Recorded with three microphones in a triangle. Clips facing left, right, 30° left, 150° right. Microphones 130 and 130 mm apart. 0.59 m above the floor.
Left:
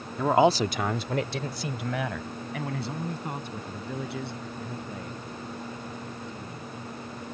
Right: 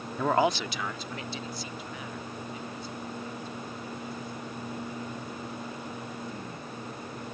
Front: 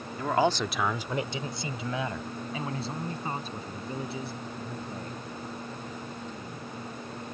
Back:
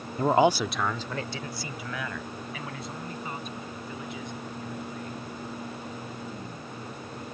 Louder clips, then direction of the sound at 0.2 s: Left 5 dB, back 4 dB; 175° right.